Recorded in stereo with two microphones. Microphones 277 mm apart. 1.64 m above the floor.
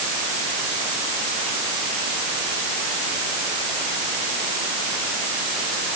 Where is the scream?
I don't hear a scream.